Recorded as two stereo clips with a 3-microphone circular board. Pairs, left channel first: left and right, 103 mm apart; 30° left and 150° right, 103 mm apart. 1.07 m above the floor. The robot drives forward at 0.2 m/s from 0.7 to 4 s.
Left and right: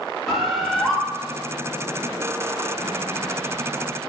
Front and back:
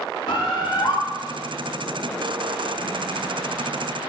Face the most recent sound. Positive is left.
turn(degrees=-5)